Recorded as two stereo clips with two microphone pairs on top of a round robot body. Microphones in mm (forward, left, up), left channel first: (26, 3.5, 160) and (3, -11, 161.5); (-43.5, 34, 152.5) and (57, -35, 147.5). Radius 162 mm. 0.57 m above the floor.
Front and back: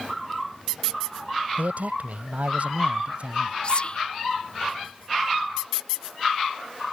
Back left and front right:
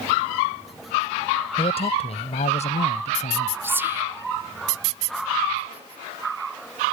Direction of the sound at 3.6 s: 30° left.